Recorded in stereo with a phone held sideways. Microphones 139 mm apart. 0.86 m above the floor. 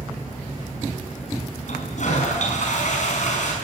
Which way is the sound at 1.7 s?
60° left (ahead or behind).